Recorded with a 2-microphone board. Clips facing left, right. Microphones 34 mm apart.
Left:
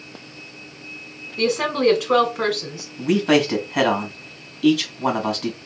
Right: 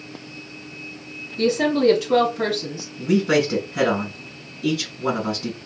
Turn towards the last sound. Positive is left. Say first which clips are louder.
# left 1 dB
turn(degrees=65)  # may be behind; listen again after turning